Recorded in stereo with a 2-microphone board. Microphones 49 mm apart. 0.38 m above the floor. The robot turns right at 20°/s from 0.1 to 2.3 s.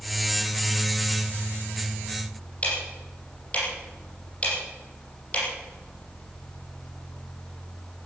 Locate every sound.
2.6 s ticking: 25° left (ahead or behind), 6.5 m